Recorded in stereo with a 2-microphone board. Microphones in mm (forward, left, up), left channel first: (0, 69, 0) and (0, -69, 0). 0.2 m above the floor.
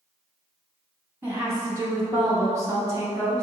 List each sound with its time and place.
1.2 s a woman speaking: 15° right (ahead or behind), 1.1 m; by 3.4 s 25° right (ahead or behind), 1.3 m